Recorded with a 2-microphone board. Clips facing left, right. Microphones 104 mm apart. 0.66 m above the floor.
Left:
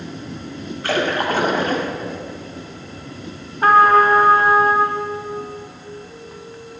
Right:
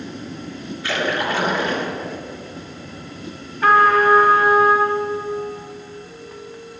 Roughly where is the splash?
Left.